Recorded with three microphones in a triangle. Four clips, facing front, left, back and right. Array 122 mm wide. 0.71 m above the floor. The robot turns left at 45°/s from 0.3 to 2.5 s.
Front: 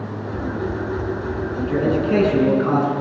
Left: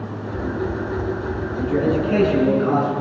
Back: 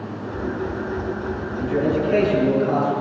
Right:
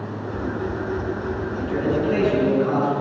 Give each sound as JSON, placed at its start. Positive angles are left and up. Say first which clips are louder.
{"t": 1.6, "sound": "a man speaking", "louder": "left 4 dB, front 1 dB", "azimuth_deg": 50, "distance_m": 7.0}